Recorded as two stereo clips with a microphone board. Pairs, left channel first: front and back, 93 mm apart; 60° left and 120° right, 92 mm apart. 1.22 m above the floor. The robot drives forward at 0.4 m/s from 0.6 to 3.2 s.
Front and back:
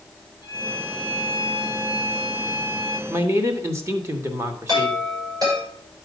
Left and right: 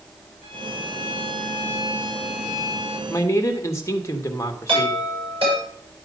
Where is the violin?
105° right, 6.5 m; by 3.0 s 115° right, 6.5 m.